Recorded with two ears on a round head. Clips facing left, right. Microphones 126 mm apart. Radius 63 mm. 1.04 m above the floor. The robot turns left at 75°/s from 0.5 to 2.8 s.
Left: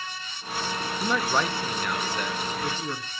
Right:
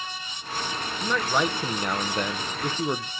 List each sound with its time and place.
1.0 s a man speaking: 20° left, 0.7 m; by 3.1 s 115° right, 0.7 m